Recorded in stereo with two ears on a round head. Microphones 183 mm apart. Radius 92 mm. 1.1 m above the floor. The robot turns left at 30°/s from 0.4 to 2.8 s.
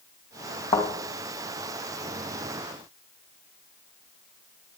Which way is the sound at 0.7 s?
25° left (ahead or behind).